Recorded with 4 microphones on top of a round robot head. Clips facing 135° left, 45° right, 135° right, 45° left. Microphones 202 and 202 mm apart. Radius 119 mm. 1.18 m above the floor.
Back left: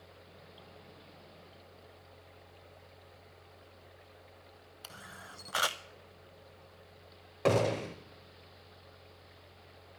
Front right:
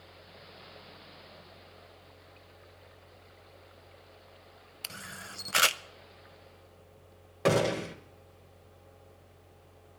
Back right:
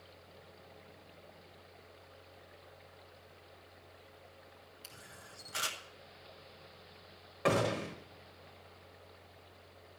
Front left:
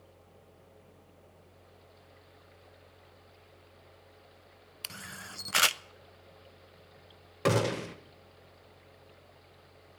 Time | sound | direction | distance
4.8 | a camera shutter | 20° left | 0.5 m
7.5 | a gunshot | 35° left | 1.0 m